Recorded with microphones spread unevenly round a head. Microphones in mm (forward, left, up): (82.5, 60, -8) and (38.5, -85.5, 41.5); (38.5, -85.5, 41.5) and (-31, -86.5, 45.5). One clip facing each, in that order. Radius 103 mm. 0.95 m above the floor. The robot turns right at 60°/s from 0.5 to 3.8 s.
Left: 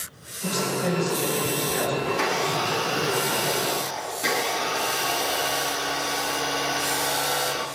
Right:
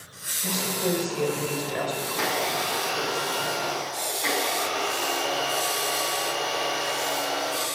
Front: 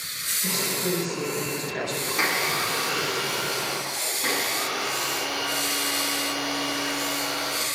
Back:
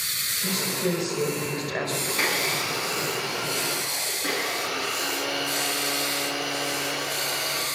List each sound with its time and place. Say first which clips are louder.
0.4 s a woman speaking: left 2 dB, back 1 dB; 145° left, 5 m; by 2.0 s 130° right, 5 m
2.1 s a blender: left 3 dB, front 3 dB; 75° right, 7.5 m; by 7.7 s 30° left, 7.5 m